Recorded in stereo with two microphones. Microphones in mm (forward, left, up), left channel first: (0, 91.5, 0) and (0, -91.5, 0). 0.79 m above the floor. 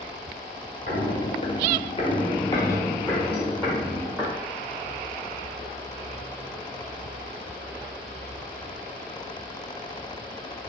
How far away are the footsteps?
About 1.3 m.